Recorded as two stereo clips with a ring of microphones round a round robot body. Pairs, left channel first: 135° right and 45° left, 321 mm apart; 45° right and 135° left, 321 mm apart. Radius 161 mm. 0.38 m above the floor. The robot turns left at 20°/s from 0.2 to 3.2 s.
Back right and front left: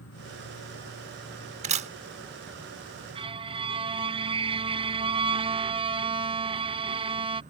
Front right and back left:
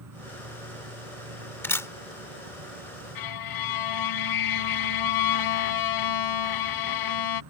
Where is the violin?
30° right.